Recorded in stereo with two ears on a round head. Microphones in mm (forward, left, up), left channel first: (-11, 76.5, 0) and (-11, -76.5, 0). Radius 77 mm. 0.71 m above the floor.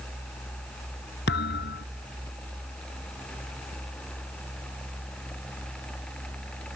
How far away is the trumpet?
I don't hear a trumpet.